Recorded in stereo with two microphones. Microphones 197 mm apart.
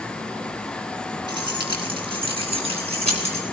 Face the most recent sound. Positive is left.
turn(degrees=-35)  # may be behind; listen again after turning